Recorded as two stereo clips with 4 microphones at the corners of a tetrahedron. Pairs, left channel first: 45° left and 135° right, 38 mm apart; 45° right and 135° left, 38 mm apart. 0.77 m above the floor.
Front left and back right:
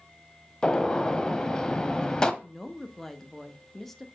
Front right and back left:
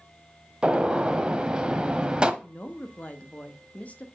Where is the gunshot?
100° left, 0.6 m.